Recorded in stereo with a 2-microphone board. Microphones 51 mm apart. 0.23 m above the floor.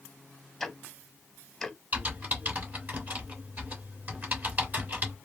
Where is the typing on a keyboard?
30° right (ahead or behind), 2.5 m.